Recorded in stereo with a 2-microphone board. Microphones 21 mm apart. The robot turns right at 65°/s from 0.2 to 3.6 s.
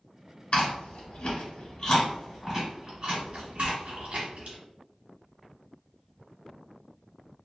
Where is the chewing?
60° left (ahead or behind), 1.4 m; by 4.6 s 75° right (ahead or behind), 1.4 m.